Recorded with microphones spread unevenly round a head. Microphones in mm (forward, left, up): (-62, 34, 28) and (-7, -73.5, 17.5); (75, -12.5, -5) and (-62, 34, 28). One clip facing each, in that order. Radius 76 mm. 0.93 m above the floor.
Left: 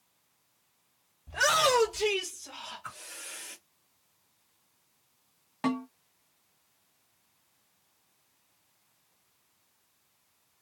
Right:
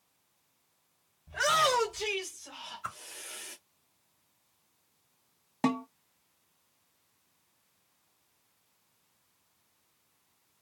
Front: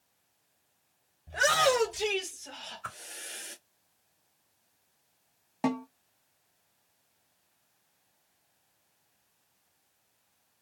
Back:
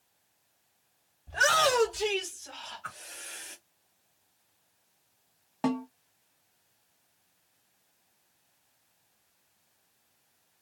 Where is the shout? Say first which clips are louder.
Left 2 dB, front 1 dB; 40° left, 1.8 m; by 3.6 s 10° right, 1.3 m.